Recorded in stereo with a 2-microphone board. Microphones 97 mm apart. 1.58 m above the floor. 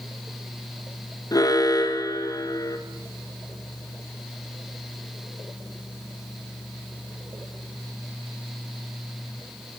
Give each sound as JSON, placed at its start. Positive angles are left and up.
{"t": 1.3, "sound": "an alarm", "side_deg": 40, "distance_m": 1.5}